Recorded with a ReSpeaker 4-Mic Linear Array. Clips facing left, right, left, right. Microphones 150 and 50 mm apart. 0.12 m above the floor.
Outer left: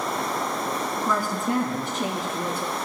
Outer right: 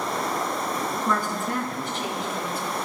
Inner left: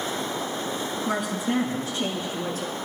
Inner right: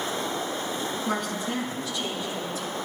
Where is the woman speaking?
Centre (ahead or behind), 1.6 m; by 2.8 s 60° left (ahead or behind), 3 m.